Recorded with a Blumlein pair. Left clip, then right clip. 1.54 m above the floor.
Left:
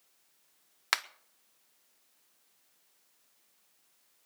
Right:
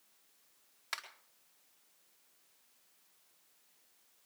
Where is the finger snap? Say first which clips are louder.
Left 11 dB; 35° left, 0.7 m.